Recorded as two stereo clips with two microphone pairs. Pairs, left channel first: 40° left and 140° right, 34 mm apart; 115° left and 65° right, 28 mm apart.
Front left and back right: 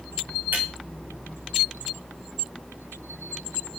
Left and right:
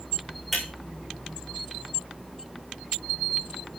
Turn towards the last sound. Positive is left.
turn(degrees=-155)